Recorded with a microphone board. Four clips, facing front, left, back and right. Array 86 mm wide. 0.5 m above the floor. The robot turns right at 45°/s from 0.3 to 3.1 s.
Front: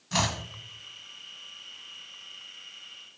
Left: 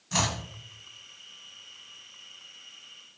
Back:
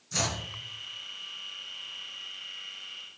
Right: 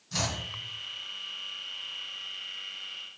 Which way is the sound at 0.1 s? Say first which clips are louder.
Left 4 dB, front 4 dB; 40° left.